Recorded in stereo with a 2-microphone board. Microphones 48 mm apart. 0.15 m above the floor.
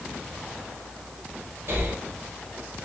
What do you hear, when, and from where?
1.7 s breathing: 45° right (ahead or behind), 1.4 m